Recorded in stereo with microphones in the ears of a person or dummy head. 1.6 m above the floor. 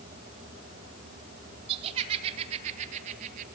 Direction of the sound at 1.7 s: 30° right (ahead or behind).